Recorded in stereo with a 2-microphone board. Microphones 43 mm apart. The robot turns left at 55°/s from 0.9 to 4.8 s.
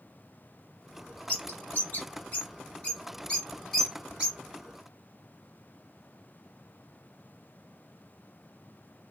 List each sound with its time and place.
1.3 s a bird: 35° left (ahead or behind), 2.5 m; by 4.4 s 25° right (ahead or behind), 2.5 m